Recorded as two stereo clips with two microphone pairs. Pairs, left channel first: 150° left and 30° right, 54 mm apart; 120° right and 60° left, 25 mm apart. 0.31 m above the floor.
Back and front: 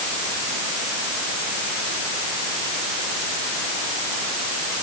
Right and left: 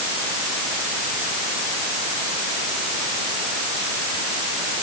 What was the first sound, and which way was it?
Only background noise.